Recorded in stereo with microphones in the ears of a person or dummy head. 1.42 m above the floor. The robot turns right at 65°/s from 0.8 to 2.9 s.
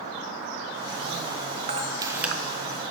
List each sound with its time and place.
1.7 s a camera shutter: 40° right (ahead or behind), 1.1 m; by 2.3 s 5° right (ahead or behind), 1.1 m